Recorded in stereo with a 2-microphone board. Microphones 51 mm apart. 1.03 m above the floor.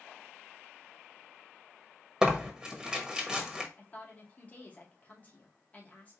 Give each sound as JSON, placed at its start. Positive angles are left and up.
{"t": 2.2, "sound": "tearing paper", "side_deg": -10, "distance_m": 1.0}
{"t": 3.8, "sound": "a woman speaking", "side_deg": 30, "distance_m": 1.9}